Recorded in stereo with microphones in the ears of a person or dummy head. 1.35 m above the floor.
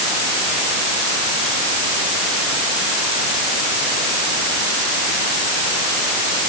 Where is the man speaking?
I don't hear a man speaking.